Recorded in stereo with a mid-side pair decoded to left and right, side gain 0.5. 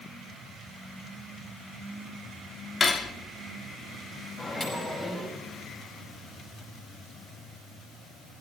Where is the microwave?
30° left, 5 m.